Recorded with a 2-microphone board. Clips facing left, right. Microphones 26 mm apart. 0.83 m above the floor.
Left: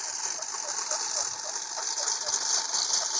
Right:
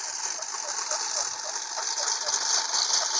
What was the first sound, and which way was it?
A lawn mower, 5° right (ahead or behind).